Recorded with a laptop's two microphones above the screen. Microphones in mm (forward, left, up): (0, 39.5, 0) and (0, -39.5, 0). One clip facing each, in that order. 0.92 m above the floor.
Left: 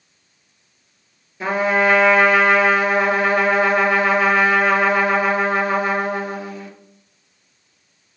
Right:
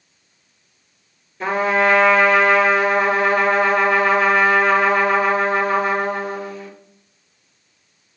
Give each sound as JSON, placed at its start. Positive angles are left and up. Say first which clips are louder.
{"t": 1.4, "sound": "a trumpet", "louder": "even", "side_deg": 5, "distance_m": 2.5}